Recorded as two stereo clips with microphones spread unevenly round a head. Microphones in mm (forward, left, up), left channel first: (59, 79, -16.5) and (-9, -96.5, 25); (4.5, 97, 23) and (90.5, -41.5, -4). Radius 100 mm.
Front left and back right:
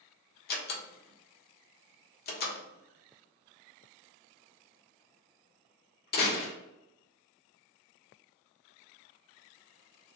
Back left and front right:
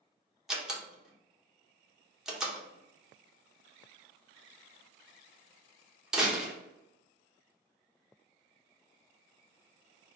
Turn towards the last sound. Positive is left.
turn(degrees=30)